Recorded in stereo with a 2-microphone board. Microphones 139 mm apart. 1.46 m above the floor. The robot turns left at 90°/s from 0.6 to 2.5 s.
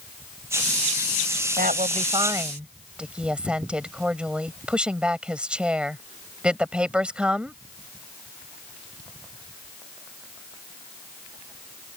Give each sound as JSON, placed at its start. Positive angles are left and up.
{"t": 1.6, "sound": "a woman speaking", "azimuth_deg": -90}